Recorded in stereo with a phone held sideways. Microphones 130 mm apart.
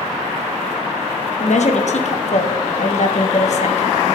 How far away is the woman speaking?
About 1.0 m.